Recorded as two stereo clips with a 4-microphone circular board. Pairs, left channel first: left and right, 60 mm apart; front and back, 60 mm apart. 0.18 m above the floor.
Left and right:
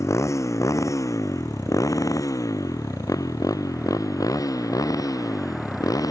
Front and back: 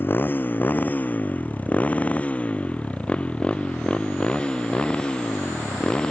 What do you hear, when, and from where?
0.0 s a motorcycle: 55° left; by 6.1 s 75° left